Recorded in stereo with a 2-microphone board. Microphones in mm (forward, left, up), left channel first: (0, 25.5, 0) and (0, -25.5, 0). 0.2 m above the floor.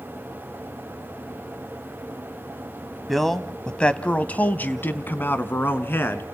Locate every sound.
3.1 s a man speaking: centre (ahead or behind), 1.0 m; by 6.2 s 40° left (ahead or behind), 1.9 m